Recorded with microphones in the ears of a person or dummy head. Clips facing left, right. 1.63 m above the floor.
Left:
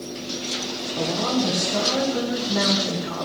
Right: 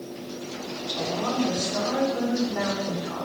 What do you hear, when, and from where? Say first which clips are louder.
1.0 s a woman speaking: left 3 dB; 45° left (ahead or behind), 1.6 m